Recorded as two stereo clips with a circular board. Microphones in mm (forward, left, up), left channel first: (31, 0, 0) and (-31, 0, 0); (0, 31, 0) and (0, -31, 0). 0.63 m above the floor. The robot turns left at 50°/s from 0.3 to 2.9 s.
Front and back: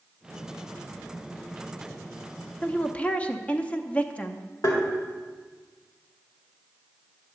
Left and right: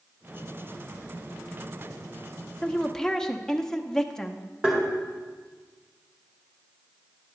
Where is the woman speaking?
40° left, 0.5 m; by 4.5 s 25° left, 0.5 m.